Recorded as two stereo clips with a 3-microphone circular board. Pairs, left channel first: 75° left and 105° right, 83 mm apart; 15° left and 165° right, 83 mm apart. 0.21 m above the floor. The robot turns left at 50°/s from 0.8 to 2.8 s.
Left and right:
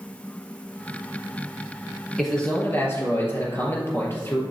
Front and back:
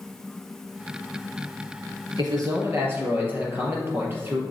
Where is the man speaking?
165° left, 4 m; by 4.4 s 135° left, 4 m.